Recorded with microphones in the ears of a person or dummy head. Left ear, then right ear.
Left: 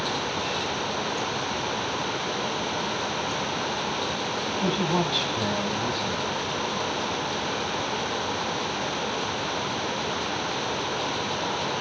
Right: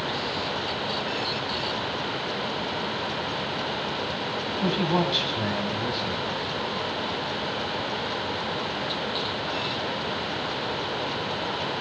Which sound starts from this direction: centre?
A man speaking, at 4.6 s.